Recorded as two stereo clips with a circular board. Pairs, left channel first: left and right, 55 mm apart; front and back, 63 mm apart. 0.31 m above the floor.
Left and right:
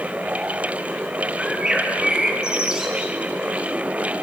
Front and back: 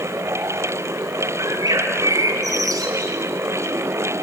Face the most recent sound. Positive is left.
turn(degrees=-160)